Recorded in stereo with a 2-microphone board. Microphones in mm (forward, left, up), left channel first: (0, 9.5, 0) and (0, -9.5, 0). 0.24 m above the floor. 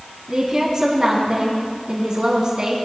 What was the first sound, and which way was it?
A woman speaking, 40° right (ahead or behind).